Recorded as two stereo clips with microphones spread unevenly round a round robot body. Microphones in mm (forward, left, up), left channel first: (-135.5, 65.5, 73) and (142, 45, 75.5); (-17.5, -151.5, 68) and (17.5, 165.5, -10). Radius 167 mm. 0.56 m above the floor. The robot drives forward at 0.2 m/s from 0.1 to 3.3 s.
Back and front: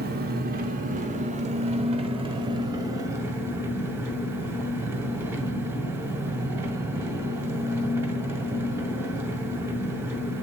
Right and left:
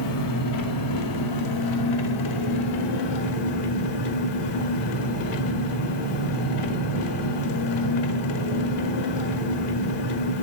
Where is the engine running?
60° right, 1.6 m; by 10.4 s 85° right, 1.4 m.